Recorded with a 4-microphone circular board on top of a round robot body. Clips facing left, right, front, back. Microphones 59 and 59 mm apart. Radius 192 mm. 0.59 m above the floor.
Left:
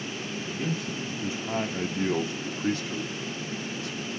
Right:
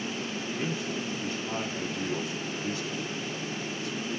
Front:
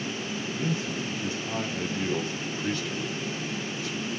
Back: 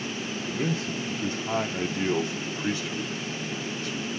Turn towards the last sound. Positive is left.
turn(degrees=90)